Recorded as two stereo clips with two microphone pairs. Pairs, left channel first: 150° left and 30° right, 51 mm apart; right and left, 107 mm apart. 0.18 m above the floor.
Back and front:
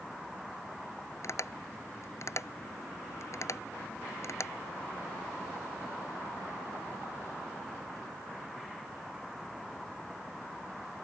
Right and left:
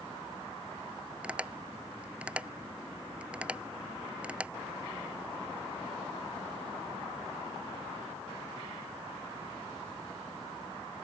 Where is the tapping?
170° left.